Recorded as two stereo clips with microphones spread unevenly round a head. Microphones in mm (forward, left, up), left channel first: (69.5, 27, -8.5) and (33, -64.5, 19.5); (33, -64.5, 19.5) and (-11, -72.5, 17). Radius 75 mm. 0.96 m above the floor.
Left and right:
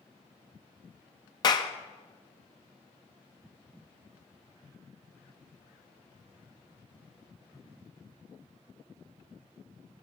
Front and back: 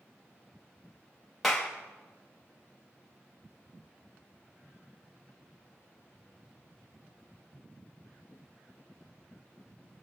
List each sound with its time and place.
1.4 s a clap: 100° left, 0.6 m